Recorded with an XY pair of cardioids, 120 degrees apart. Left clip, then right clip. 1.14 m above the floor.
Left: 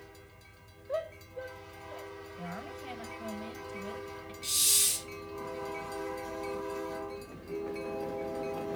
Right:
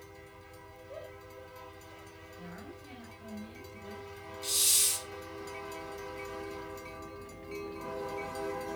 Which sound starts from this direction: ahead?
A hiss, at 4.4 s.